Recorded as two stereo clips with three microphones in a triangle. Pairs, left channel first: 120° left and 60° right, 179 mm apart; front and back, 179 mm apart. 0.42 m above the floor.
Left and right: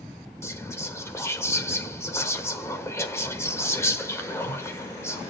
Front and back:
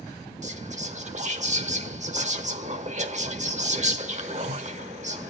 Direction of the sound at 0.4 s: 175° right.